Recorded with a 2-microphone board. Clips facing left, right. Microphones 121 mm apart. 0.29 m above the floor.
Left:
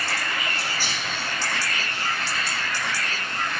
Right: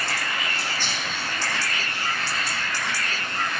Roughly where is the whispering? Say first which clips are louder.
Even; centre.